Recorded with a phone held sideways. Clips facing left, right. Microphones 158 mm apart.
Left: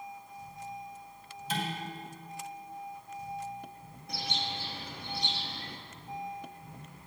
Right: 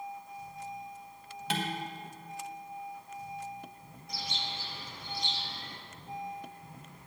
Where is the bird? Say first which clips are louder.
Left 3 dB; 65° left (ahead or behind), 1.0 m.